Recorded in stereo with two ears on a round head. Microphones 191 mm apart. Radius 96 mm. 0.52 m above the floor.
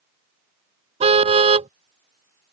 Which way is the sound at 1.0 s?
30° right (ahead or behind).